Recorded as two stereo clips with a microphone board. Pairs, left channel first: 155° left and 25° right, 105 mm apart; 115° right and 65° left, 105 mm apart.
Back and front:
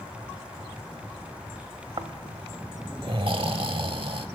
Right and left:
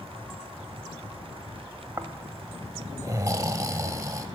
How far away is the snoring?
About 0.8 m.